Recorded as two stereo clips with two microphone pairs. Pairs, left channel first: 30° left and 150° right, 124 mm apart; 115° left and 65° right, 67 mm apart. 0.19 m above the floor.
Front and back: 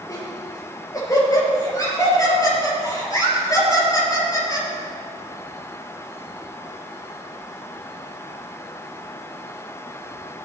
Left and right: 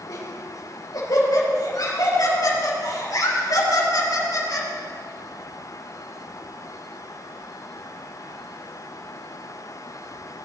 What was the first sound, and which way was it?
Laughter, 90° left.